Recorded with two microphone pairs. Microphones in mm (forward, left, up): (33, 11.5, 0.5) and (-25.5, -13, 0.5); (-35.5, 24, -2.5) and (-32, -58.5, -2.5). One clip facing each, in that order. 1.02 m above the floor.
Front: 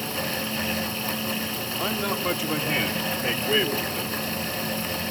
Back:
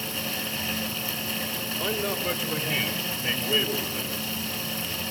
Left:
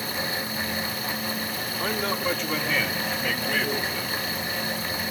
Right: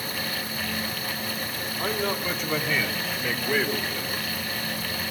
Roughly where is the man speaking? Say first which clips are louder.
Front 2 dB, even; ahead.